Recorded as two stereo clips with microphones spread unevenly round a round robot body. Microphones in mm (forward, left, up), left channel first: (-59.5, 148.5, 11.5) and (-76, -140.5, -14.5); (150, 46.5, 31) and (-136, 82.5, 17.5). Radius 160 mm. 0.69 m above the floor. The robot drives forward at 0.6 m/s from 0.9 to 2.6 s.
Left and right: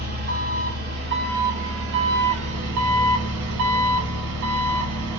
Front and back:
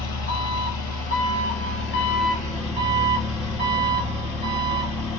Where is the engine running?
40° right, 1.7 m; by 5.2 s 80° right, 1.2 m.